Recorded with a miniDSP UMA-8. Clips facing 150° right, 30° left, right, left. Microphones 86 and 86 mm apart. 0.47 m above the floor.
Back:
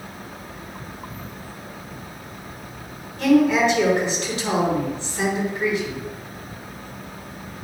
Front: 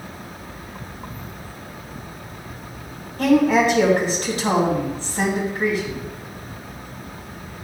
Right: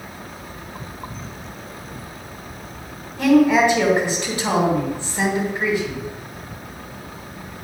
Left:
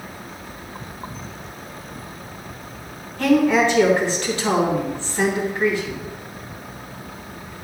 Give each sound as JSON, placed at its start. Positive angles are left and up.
{"t": 3.2, "sound": "a woman speaking", "azimuth_deg": -15, "distance_m": 2.5}